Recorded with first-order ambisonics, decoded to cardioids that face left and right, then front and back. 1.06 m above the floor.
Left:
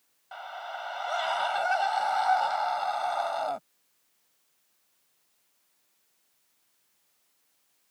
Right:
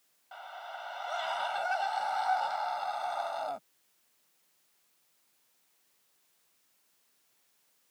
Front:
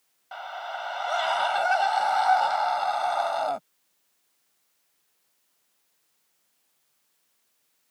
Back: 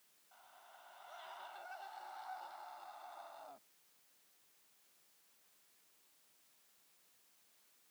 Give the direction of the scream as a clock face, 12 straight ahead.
11 o'clock.